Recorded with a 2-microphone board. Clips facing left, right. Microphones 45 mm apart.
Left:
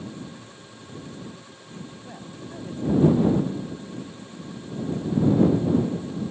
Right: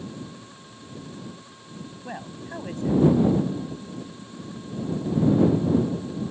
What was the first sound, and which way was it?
A woman speaking, 65° right (ahead or behind).